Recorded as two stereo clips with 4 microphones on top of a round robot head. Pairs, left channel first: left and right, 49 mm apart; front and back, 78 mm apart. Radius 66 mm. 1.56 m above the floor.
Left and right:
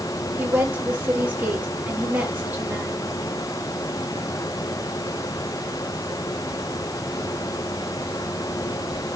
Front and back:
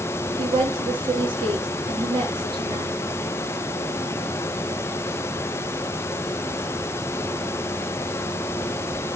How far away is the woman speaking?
About 4.5 m.